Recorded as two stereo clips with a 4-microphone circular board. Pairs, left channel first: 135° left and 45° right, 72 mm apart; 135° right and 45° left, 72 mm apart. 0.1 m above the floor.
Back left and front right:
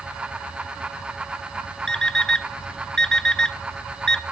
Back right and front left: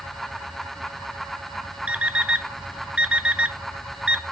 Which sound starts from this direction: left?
An alarm clock, at 1.9 s.